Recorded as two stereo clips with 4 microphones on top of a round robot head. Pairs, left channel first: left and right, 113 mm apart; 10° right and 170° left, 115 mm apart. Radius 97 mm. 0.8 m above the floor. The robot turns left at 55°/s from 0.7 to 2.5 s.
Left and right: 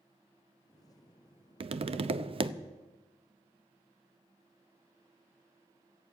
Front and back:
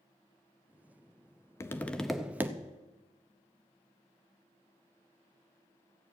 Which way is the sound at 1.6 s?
70° right.